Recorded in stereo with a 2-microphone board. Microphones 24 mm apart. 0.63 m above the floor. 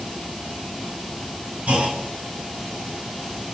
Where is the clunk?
75° right (ahead or behind), 6 m.